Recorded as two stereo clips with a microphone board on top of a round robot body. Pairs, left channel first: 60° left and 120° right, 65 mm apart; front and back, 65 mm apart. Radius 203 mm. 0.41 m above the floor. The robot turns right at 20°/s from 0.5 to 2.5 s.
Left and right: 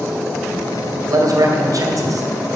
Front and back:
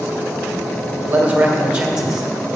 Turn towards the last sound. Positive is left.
turn(degrees=-90)